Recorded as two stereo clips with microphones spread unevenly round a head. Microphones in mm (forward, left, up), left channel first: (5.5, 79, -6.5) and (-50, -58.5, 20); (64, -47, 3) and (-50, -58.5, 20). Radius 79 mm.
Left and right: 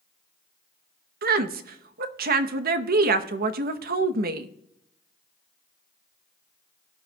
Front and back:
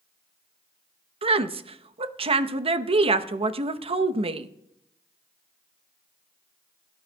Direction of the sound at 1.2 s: 135° right.